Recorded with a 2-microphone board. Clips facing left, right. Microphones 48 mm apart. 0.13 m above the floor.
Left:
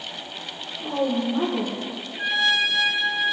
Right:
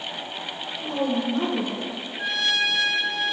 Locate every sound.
0.8 s a woman speaking: 30° left (ahead or behind), 2.5 m
2.2 s a trumpet: 20° left (ahead or behind), 0.6 m